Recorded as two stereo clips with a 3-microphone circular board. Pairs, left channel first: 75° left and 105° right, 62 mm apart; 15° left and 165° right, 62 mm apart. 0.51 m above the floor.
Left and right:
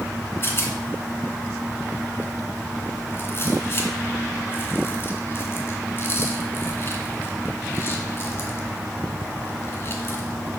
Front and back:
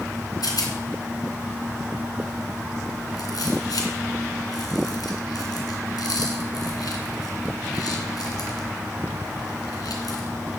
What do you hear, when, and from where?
0.4 s a rattle: 25° left, 2 m